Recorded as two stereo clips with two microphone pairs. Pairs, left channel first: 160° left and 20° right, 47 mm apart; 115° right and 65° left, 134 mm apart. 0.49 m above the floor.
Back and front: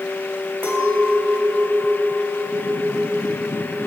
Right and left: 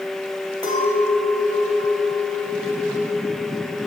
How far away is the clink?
About 1.2 m.